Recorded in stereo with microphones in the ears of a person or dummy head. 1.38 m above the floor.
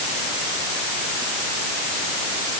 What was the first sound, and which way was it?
Only background noise.